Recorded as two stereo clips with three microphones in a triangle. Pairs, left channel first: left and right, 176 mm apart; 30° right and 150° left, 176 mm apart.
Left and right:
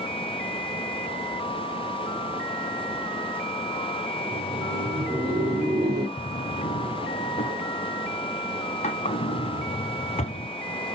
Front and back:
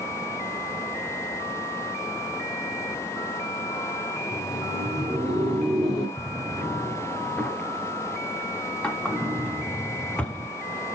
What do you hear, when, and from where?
4.2 s laughter: 115° right, 1.6 m
6.2 s a drawer: 50° left, 0.9 m